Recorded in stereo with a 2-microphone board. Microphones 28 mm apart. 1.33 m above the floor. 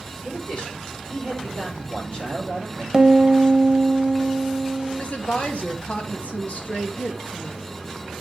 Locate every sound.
0.2 s a man speaking: 45° left (ahead or behind), 5.5 m
2.9 s a piano: 25° right (ahead or behind), 0.7 m
5.0 s a woman speaking: 55° left (ahead or behind), 2.5 m